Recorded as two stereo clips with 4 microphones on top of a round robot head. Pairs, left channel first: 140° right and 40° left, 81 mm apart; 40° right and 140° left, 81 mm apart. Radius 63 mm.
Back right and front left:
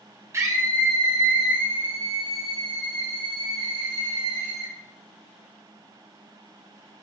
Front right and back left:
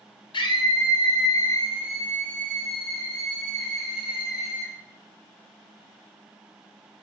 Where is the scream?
15° right, 1.9 m; by 4.7 s 50° left, 5.5 m.